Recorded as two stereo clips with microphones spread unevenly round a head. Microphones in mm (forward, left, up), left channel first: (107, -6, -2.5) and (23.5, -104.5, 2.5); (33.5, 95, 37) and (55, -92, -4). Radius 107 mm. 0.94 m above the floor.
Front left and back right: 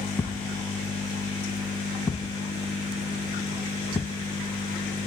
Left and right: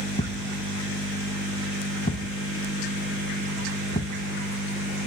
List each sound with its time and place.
0.2 s a thud: 115° left, 1.0 m